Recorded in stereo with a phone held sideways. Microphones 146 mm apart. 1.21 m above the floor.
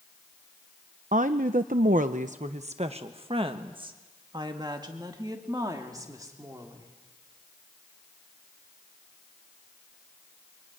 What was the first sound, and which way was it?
A woman speaking, 60° right (ahead or behind).